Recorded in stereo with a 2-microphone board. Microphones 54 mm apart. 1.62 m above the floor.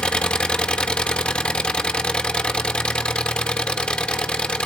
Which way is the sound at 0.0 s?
20° left (ahead or behind).